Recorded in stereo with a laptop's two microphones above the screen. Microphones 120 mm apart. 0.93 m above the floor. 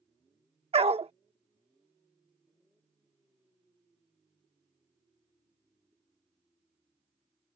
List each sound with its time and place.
0.7 s a dog barking: 60° right (ahead or behind)